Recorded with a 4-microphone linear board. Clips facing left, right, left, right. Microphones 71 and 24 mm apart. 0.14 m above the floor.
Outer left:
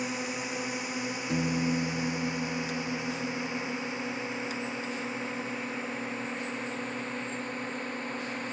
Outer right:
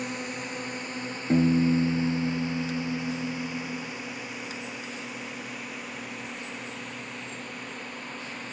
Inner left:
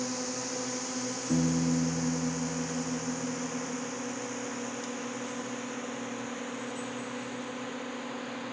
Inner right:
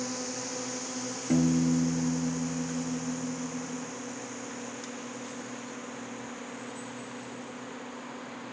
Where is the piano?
40° right (ahead or behind).